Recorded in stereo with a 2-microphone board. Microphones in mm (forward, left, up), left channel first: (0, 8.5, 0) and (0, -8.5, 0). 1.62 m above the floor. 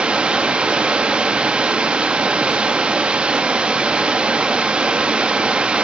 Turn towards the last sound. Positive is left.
turn(degrees=-70)  # may be behind; listen again after turning